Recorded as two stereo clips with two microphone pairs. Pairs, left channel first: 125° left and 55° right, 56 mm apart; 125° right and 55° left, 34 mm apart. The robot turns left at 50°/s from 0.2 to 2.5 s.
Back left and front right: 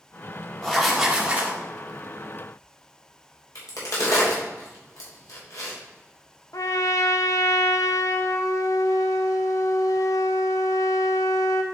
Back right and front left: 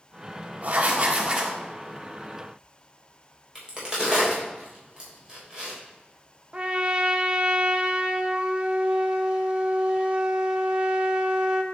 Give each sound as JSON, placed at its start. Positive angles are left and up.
{"t": 0.6, "sound": "writing", "azimuth_deg": 45, "distance_m": 1.5}
{"t": 3.5, "sound": "a crack", "azimuth_deg": 120, "distance_m": 3.5}
{"t": 6.5, "sound": "a trumpet", "azimuth_deg": 110, "distance_m": 0.8}